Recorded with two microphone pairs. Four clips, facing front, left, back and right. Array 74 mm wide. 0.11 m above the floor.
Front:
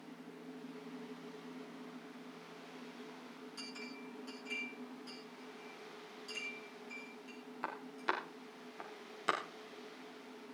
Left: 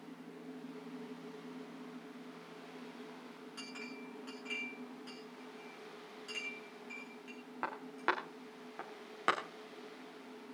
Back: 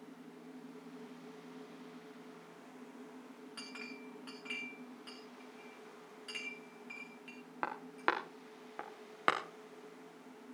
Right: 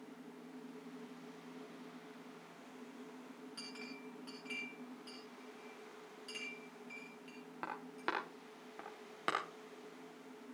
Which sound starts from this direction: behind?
A clink, at 3.6 s.